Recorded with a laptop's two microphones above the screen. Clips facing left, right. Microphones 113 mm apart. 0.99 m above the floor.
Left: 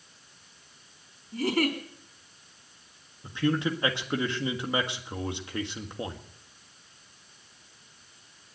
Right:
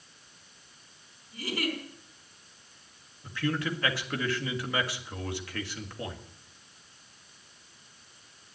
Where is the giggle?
60° left (ahead or behind), 4.5 m.